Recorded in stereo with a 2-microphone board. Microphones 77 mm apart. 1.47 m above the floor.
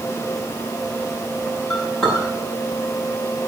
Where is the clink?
5° left (ahead or behind), 9 m.